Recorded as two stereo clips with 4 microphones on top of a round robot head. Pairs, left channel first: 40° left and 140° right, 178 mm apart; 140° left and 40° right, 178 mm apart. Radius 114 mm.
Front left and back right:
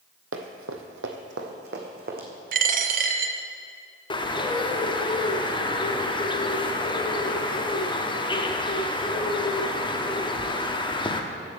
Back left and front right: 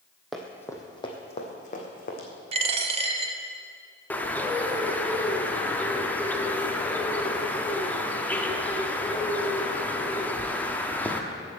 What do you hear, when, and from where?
0.3 s running footsteps: 130° right, 1.0 m; by 2.3 s straight behind, 1.8 m
2.5 s a dropped coin: 95° right, 0.6 m
4.1 s a bird: 65° left, 1.0 m